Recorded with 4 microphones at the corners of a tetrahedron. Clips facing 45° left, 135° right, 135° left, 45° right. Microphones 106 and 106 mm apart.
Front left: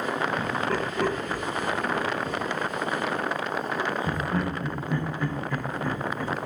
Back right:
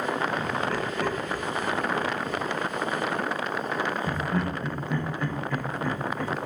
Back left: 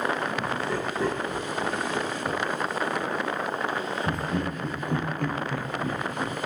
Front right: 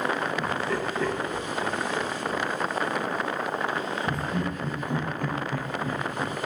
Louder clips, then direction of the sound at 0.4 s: Front left 1 dB, front right 1 dB; 70° left.